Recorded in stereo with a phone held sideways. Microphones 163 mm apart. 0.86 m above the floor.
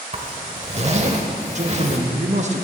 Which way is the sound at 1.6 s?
45° right (ahead or behind).